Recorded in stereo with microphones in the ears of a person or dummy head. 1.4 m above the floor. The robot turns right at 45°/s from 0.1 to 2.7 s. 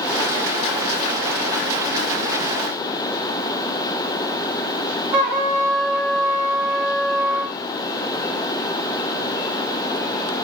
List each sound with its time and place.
5.1 s a trumpet: 35° right (ahead or behind), 2.5 m